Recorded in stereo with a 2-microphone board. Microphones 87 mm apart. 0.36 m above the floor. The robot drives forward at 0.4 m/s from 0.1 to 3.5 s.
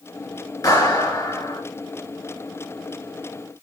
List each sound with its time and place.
0.6 s a clap: 45° left (ahead or behind), 5 m